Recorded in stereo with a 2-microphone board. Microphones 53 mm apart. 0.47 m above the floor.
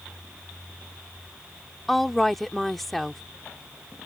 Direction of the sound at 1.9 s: 5° left (ahead or behind).